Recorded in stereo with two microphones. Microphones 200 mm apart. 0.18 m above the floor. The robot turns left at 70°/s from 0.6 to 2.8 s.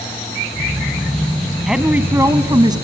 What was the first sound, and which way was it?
A woman speaking, centre (ahead or behind).